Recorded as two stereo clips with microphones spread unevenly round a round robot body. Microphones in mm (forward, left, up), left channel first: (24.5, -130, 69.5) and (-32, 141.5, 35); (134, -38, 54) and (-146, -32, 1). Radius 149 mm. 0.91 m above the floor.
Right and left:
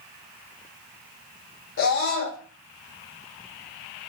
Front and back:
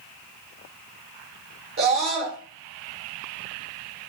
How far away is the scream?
About 1.3 m.